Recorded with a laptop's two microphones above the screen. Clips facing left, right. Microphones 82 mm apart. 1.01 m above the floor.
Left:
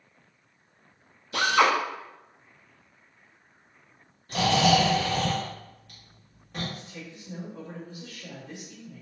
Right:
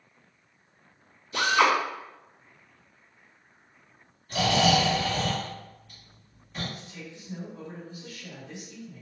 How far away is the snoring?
About 1.5 m.